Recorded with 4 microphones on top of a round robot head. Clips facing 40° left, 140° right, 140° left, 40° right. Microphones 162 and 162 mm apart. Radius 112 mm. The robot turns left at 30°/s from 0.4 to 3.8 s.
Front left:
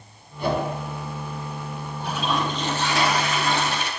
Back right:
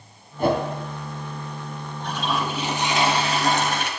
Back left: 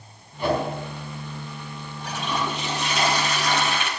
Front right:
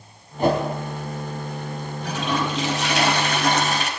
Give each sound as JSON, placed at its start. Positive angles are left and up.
{"t": 0.4, "sound": "a whoosh", "azimuth_deg": -90, "distance_m": 4.0}
{"t": 2.0, "sound": "a toilet flushing", "azimuth_deg": -40, "distance_m": 3.5}